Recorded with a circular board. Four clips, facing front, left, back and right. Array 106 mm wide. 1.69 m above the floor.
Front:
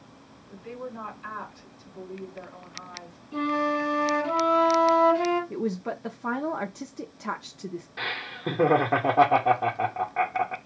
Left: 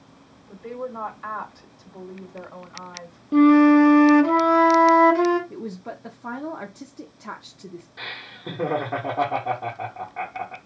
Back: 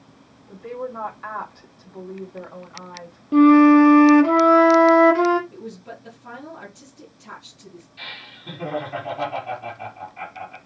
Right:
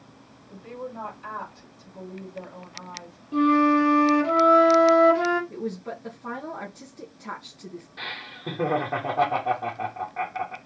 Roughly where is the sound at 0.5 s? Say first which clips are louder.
Left 4 dB, back 7 dB; behind left.